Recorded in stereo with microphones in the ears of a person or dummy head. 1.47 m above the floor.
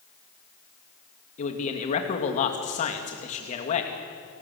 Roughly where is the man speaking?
Left.